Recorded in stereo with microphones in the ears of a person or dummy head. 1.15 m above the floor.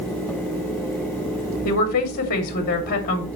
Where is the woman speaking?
45° left (ahead or behind), 2.5 m.